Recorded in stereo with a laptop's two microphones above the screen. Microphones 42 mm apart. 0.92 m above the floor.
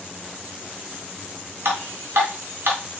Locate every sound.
1.6 s dripping: 65° right (ahead or behind), 1.5 m